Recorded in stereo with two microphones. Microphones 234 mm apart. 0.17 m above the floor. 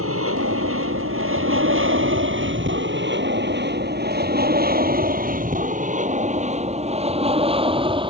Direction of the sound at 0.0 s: 65° right (ahead or behind).